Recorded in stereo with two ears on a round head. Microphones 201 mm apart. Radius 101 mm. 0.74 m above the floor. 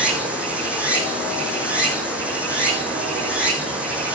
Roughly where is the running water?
Centre.